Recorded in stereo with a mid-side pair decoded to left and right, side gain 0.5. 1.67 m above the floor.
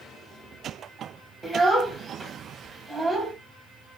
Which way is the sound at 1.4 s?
15° right.